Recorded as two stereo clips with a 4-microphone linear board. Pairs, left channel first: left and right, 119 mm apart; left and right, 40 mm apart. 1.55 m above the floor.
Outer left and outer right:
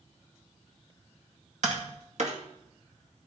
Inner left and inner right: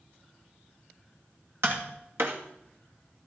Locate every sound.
1.6 s tapping: 65° right (ahead or behind), 2 m